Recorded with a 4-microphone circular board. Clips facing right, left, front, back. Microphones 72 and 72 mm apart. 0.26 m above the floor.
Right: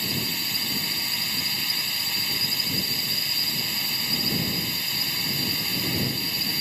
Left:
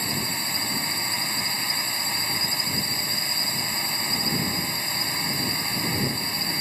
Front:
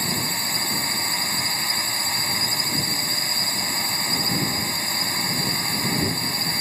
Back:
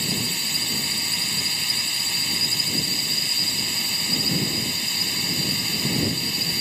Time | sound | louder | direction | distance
0.0 | a drone | left 2 dB, front 2 dB | 40° left | ?